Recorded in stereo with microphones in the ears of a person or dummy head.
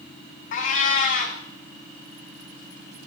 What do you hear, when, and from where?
0.5 s a cat meowing: 45° left (ahead or behind), 1.3 m